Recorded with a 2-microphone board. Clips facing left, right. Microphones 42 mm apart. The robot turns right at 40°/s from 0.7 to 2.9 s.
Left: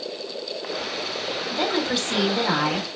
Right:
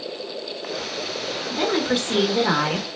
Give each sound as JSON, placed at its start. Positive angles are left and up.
{"t": 1.5, "sound": "a woman speaking", "azimuth_deg": -155, "distance_m": 1.2}